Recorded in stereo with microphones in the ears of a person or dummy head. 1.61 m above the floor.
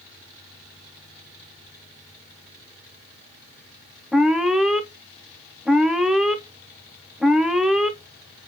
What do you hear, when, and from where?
4.1 s an alarm: centre (ahead or behind), 0.5 m